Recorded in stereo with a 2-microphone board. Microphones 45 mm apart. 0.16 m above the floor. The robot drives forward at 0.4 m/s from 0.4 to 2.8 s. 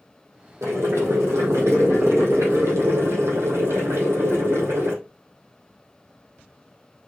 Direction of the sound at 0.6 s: 80° right.